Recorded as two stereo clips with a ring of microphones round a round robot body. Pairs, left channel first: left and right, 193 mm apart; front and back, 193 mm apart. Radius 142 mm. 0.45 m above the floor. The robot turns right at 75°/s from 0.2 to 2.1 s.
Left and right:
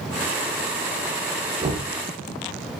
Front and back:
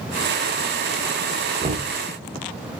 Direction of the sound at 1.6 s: 135° right.